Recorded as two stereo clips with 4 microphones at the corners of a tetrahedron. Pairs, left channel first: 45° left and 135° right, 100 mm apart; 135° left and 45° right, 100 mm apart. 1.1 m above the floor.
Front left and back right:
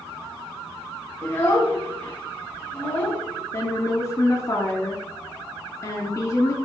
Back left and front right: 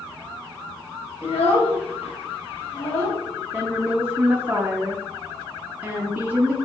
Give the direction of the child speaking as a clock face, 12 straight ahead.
8 o'clock.